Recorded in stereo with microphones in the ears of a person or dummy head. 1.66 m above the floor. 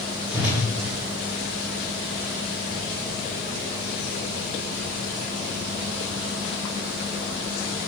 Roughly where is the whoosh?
Centre.